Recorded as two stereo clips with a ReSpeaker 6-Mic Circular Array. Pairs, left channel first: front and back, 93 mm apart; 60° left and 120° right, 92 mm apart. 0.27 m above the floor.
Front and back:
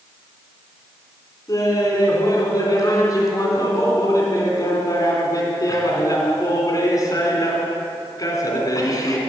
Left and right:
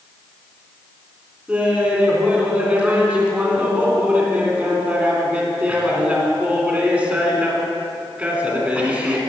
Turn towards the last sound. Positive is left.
turn(degrees=-45)